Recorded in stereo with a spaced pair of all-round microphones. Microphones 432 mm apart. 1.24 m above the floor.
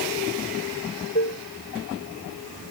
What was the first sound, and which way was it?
Dishes clattering, 25° left (ahead or behind).